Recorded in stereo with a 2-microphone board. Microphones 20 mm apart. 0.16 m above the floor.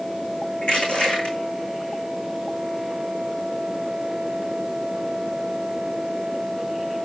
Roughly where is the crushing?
Left.